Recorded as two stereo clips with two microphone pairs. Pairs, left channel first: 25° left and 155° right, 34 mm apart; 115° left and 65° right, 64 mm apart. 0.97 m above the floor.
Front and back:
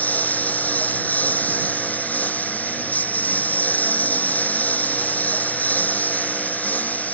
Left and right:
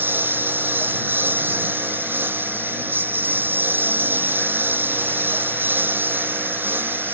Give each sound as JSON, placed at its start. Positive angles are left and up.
{"t": 0.0, "sound": "a lawn mower", "azimuth_deg": -10}